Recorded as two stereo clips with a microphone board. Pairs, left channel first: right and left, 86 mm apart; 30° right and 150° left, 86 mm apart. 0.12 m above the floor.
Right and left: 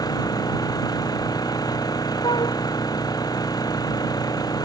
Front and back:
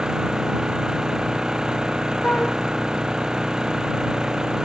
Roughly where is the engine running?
Behind right.